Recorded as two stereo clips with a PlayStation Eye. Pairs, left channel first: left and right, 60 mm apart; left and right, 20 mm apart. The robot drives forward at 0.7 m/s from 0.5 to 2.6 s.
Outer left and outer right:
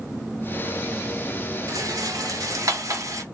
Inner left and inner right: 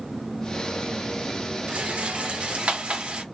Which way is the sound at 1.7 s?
70° right (ahead or behind).